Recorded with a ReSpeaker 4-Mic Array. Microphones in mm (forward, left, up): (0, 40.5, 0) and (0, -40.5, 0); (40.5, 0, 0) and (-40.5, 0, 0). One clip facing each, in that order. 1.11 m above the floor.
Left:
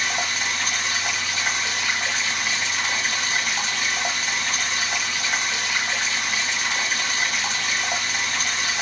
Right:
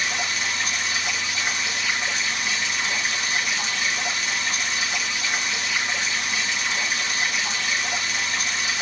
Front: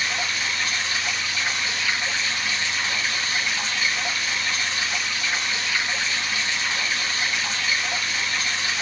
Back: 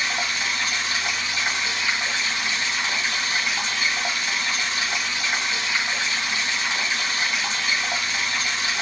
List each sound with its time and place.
0.0 s running water: 115° left, 1.7 m